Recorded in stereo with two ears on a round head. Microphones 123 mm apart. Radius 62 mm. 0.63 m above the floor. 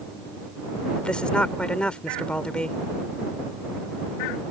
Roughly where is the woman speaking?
Centre.